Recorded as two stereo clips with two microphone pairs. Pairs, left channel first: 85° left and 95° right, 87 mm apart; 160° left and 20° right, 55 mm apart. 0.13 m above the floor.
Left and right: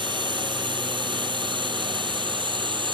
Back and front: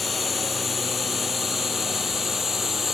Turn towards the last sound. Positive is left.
turn(degrees=-105)